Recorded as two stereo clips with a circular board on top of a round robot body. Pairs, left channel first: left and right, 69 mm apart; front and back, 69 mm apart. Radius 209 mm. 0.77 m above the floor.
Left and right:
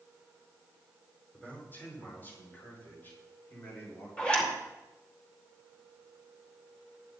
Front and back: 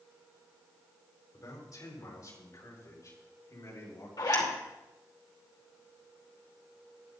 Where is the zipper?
15° left, 2.5 m.